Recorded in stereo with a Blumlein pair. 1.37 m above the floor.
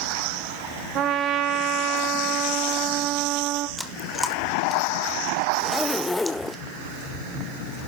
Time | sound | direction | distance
0.9 | a trumpet | 35° right | 2 m
3.8 | chewing | 5° left | 1.7 m
5.6 | a zipper | 5° left | 0.6 m